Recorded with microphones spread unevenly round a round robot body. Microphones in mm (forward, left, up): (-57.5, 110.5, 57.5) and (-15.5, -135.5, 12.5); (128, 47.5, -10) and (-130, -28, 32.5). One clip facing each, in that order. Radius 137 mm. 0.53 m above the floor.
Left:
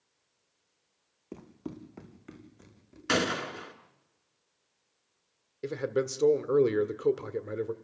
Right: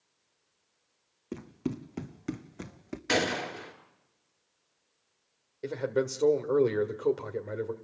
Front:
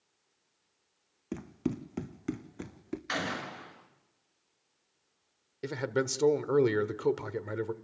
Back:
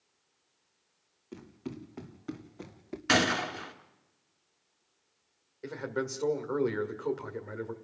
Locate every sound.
1.3 s running footsteps: 10° right, 1.7 m; by 3.0 s 55° right, 1.8 m
3.1 s a gunshot: 175° left, 3.5 m
5.6 s a man speaking: 20° left, 1.5 m